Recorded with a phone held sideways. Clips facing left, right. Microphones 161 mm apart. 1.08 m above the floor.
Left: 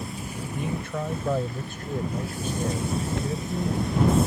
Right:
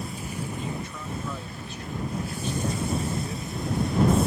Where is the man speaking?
65° left (ahead or behind); by 4.2 s 25° left (ahead or behind).